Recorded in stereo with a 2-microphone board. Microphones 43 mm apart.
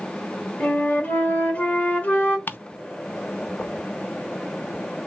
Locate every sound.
0.6 s a flute: 25° left (ahead or behind), 1.6 m
2.5 s ticking: 45° left (ahead or behind), 0.5 m